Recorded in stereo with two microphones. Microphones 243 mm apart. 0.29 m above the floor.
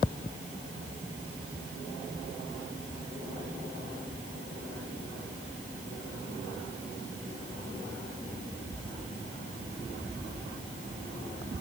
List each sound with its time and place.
Only background noise.